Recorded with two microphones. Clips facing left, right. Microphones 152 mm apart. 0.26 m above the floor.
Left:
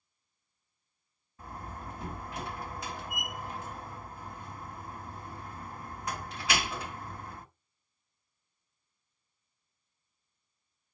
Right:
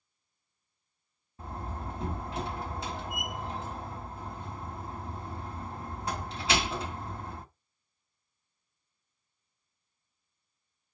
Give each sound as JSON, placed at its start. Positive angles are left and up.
{"t": 1.4, "sound": "a door slam", "side_deg": -30, "distance_m": 1.2}